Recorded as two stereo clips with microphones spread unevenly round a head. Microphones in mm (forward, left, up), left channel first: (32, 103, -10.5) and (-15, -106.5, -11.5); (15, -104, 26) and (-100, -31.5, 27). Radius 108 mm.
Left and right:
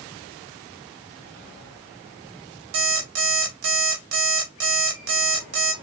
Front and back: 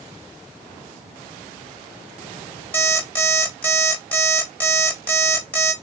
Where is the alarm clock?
110° right, 2.0 m.